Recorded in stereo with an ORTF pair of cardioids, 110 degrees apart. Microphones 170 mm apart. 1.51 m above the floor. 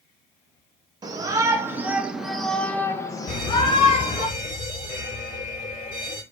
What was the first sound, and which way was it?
A shout, 25° right.